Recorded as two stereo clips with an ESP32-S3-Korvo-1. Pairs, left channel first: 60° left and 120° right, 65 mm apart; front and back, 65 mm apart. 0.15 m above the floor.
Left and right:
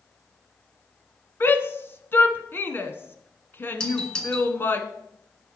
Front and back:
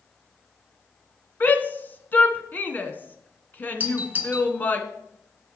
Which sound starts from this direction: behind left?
A doorbell, at 3.8 s.